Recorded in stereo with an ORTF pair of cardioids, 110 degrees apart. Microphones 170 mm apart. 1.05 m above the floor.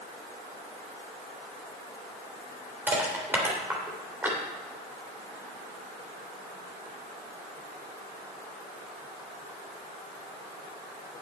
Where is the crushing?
10° right, 3 m.